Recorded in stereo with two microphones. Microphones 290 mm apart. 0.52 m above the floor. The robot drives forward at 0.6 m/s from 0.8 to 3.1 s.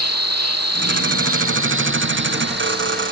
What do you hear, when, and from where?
0.0 s an insect: 60° right (ahead or behind); by 3.1 s 30° right (ahead or behind)